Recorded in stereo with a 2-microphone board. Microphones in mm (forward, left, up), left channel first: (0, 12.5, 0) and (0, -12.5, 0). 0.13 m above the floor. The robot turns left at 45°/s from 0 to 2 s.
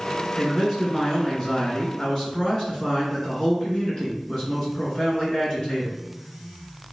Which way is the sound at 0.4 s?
150° right.